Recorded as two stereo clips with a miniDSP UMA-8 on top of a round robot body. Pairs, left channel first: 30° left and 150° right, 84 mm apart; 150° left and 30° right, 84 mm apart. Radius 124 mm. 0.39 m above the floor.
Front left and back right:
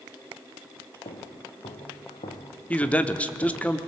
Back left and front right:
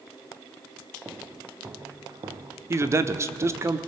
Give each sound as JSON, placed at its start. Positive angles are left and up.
{"t": 1.1, "sound": "footsteps", "azimuth_deg": 45, "distance_m": 1.8}
{"t": 2.7, "sound": "a man speaking", "azimuth_deg": -30, "distance_m": 1.2}